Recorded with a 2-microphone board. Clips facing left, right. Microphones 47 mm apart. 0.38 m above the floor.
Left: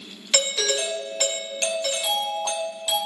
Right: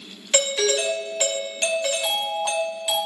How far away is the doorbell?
About 2 m.